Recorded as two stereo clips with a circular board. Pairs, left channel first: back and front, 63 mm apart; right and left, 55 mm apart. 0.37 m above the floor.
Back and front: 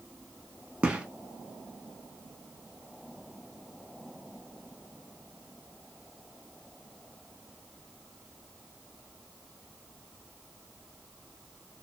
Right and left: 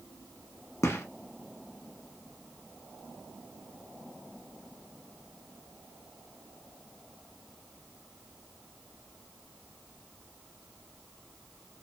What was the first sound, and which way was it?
A gunshot, 70° right.